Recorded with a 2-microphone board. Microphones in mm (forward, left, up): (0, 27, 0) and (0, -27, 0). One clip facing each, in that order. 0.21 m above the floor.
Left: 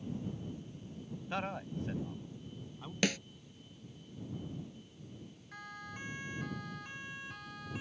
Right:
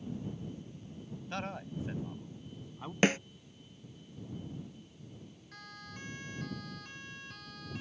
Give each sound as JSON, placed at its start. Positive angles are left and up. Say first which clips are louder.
{"t": 1.3, "sound": "a man speaking", "louder": "left 1 dB", "side_deg": 10}
{"t": 3.0, "sound": "a snare drum", "louder": "right 6 dB", "side_deg": -35}
{"t": 5.5, "sound": "a siren", "louder": "left 3 dB", "side_deg": 15}